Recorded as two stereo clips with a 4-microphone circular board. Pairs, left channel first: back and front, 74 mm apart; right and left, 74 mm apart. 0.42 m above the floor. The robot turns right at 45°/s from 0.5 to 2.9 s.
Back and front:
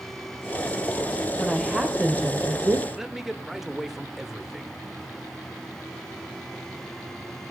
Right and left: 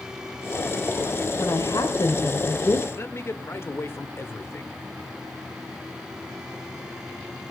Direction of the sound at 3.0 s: 80° right.